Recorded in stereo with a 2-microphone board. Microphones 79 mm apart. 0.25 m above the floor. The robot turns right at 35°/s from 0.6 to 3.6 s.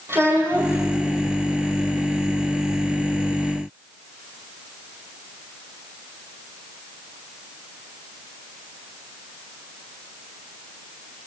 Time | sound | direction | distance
0.1 | a child speaking | 35° right (ahead or behind) | 9 m